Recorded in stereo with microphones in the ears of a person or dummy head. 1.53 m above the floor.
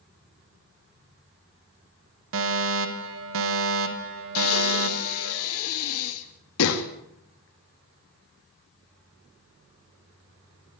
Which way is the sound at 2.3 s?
65° right (ahead or behind).